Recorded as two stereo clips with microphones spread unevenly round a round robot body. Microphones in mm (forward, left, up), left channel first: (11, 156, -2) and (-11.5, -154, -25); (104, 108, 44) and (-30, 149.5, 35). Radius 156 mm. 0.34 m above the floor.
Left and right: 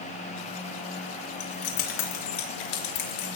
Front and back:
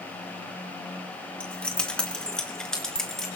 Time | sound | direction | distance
1.4 | keys jangling | 65° left | 3.5 m